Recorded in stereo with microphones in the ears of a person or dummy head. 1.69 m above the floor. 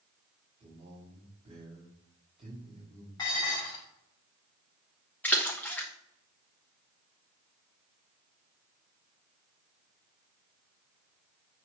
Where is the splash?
10° left (ahead or behind), 1.6 m.